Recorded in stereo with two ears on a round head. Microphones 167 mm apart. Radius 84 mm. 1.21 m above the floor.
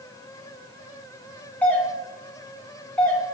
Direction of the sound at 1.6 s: 10° left (ahead or behind).